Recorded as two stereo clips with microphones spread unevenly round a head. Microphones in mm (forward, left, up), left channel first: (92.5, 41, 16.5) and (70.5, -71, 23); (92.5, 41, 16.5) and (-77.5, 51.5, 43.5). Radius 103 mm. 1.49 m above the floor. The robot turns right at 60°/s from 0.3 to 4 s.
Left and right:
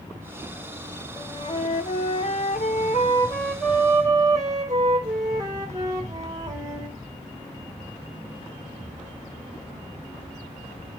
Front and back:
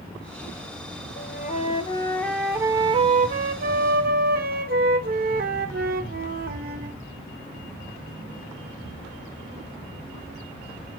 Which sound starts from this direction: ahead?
A flute, at 1.2 s.